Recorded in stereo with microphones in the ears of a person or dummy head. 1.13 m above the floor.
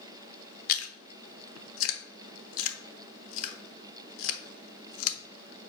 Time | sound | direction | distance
0.7 | chewing | 75° left (ahead or behind) | 0.9 m